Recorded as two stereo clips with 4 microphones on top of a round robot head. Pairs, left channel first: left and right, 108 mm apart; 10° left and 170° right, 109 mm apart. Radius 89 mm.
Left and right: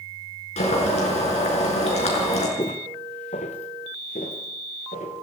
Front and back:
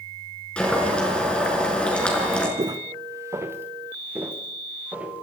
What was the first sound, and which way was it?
Boiling, 90° left.